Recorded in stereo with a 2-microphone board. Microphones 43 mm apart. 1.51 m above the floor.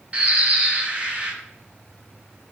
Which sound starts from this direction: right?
A bird, at 0.1 s.